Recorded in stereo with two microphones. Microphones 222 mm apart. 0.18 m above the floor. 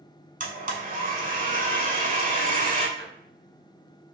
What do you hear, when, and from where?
0.4 s a blender: 40° right (ahead or behind), 0.8 m
3.0 s a drawer: 25° left (ahead or behind), 1.5 m